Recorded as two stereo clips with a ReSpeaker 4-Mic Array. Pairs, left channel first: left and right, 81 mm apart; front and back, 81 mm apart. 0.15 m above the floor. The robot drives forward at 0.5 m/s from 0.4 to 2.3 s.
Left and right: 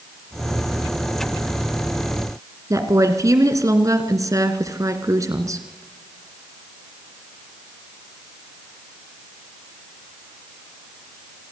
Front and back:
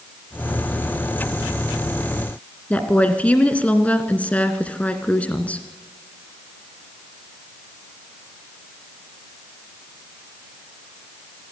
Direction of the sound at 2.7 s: 65° right.